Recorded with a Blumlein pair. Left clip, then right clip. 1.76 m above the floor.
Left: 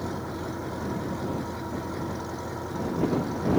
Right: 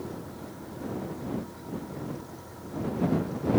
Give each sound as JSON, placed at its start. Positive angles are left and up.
{"t": 0.0, "sound": "an engine running", "azimuth_deg": 60}